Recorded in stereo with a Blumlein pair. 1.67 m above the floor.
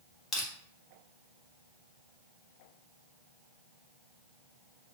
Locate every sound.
0.3 s crushing: 20° left, 1.6 m